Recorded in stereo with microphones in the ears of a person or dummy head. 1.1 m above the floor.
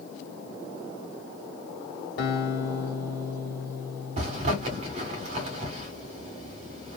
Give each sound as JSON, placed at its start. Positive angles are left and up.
{"t": 2.2, "sound": "a guitar", "side_deg": 55, "distance_m": 1.2}
{"t": 4.2, "sound": "a zipper", "side_deg": -40, "distance_m": 1.0}